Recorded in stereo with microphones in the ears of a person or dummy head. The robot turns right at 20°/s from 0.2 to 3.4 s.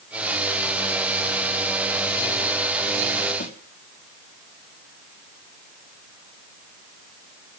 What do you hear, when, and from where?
3.4 s a snare drum: 40° left (ahead or behind), 3.5 m